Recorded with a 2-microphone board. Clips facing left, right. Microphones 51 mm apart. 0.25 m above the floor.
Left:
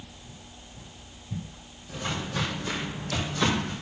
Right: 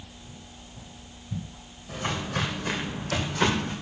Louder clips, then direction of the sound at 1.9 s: Right 2 dB; 55° right (ahead or behind).